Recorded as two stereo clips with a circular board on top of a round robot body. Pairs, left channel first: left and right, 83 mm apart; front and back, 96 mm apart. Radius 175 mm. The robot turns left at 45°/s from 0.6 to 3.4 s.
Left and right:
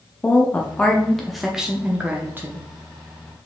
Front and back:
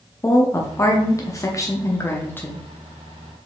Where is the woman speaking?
30° left, 1.0 m; by 2.6 s 60° right, 1.0 m.